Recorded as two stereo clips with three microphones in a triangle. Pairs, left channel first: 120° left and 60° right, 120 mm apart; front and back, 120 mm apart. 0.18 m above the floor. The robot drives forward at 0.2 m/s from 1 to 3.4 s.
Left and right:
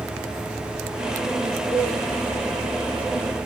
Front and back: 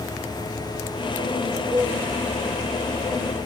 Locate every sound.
1.7 s a cowbell: 130° right, 2.5 m